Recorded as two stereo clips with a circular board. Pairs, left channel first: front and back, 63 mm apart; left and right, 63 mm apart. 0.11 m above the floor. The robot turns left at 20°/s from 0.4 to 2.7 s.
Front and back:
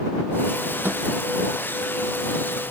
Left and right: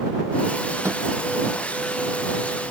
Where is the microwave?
125° right; by 1.0 s 130° right.